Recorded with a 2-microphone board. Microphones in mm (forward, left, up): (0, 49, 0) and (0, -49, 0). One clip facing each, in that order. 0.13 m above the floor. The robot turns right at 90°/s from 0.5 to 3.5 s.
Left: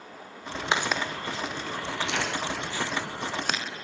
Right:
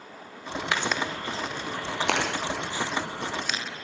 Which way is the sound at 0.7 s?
25° left (ahead or behind).